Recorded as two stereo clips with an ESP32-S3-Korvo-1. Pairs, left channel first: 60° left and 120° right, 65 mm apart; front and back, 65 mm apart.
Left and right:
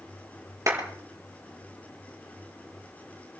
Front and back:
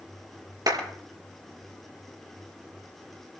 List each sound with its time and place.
0.7 s a clap: 160° right, 5 m